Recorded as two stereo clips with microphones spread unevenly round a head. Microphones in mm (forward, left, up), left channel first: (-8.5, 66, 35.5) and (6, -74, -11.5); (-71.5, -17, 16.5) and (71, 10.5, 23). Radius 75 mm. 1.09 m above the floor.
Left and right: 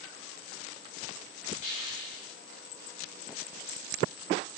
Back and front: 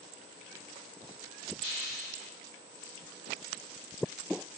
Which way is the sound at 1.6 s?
100° left.